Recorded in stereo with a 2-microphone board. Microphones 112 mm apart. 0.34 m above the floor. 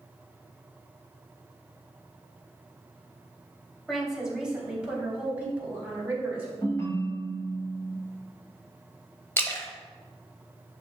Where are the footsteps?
I don't hear footsteps.